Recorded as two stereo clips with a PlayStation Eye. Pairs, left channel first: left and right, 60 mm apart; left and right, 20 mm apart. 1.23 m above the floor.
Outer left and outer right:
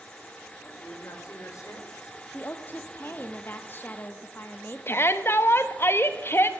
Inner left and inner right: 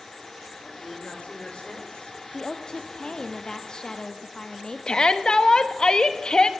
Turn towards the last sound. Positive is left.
turn(degrees=45)  # may be behind; listen again after turning